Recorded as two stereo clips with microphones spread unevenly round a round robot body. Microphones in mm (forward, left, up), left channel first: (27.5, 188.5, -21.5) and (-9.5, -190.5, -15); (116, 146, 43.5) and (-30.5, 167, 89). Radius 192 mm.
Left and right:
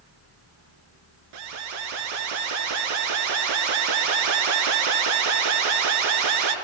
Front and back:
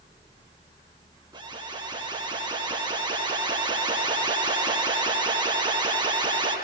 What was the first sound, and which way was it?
An alarm, 110° right.